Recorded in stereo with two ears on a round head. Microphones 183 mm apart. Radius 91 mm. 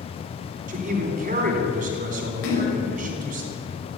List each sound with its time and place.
0.7 s a man speaking: 40° right (ahead or behind), 3.5 m
2.4 s a splash: 65° left (ahead or behind), 4.5 m